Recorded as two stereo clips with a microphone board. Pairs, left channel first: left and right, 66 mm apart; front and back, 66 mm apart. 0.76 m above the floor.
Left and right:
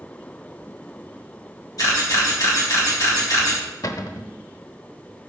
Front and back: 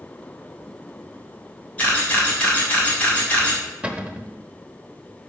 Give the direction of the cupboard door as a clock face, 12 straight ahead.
8 o'clock.